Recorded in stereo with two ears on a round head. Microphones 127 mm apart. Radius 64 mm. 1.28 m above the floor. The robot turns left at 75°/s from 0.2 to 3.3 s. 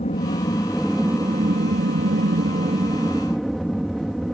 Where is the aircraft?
50° left; by 4.3 s straight behind.